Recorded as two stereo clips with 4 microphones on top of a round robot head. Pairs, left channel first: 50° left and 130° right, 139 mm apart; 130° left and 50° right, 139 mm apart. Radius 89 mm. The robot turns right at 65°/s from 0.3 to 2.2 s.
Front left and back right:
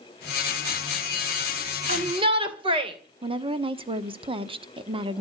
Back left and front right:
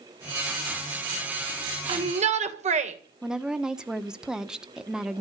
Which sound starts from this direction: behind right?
A woman speaking, at 3.2 s.